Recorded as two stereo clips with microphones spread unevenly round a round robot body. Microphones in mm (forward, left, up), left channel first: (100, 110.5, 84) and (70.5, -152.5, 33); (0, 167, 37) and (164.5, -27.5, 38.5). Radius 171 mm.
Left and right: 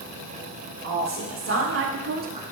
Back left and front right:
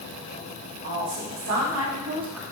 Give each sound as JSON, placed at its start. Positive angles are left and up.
{"t": 0.8, "sound": "a woman speaking", "azimuth_deg": -60, "distance_m": 2.5}